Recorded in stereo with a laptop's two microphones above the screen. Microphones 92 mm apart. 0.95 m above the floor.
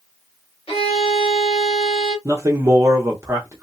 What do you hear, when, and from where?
0.7 s a violin: 75° left (ahead or behind), 1.5 m
2.2 s a man speaking: 30° right (ahead or behind), 0.8 m